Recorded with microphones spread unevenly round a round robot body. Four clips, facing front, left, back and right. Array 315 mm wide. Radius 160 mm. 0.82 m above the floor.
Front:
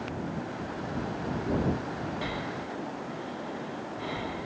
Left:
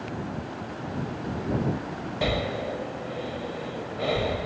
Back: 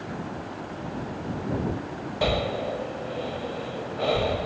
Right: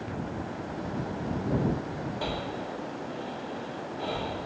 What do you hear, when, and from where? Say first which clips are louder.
2.2 s breathing: left 9 dB, back 9 dB; 135° left